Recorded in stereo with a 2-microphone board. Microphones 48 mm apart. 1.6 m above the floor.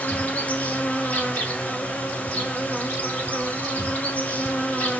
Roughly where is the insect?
Left.